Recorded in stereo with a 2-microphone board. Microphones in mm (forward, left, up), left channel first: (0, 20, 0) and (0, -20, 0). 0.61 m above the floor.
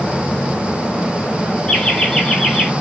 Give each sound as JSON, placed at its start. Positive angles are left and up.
{"t": 1.7, "sound": "laughter", "side_deg": 15, "distance_m": 1.7}